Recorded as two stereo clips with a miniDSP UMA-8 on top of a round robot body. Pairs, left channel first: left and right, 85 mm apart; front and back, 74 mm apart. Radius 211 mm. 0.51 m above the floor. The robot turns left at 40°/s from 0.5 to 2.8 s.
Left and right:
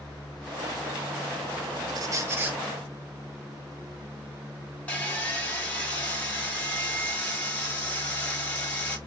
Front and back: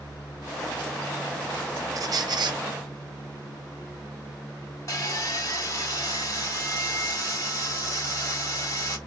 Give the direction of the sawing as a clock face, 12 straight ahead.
11 o'clock.